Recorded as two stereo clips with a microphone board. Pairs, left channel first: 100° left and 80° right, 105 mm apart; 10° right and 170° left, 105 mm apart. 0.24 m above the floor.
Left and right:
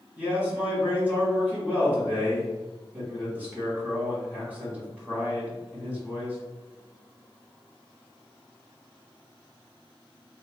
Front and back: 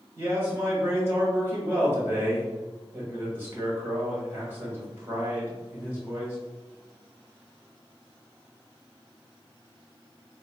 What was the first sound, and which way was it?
A man speaking, 140° right.